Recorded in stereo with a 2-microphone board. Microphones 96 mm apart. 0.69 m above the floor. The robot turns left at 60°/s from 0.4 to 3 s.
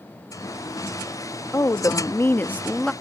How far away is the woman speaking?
About 0.6 m.